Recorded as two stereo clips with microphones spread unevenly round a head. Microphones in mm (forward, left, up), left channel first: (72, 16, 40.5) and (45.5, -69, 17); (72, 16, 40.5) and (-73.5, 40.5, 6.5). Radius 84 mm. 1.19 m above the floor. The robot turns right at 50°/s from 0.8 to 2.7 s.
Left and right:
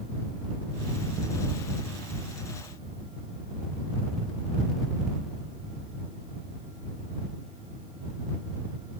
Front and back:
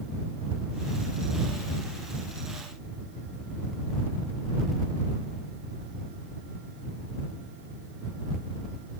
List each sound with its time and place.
Only background noise.